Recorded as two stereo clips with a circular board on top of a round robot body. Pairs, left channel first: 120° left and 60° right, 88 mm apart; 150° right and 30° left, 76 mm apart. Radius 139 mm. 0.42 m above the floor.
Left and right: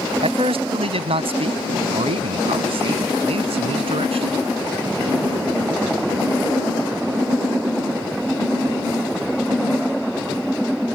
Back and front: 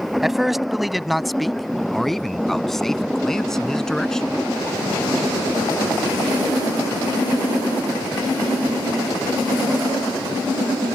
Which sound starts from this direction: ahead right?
A man speaking, at 0.2 s.